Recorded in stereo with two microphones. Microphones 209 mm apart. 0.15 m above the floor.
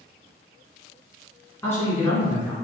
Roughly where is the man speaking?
Centre.